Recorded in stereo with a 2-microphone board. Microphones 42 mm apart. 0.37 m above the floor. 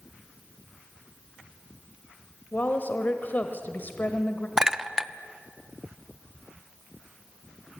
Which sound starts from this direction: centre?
A clink, at 4.6 s.